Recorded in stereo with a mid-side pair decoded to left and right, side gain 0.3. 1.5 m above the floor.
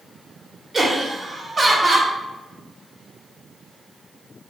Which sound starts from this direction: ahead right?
Laughter, at 0.7 s.